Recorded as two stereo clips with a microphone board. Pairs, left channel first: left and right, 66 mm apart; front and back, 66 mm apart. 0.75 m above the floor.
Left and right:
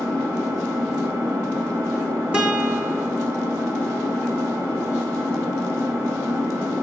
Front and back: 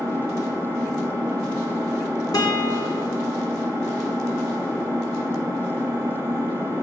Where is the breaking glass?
No breaking glass in this recording.